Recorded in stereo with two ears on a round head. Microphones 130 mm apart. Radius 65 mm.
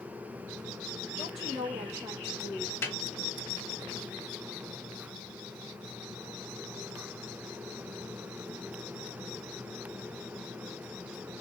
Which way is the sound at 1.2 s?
Centre (ahead or behind).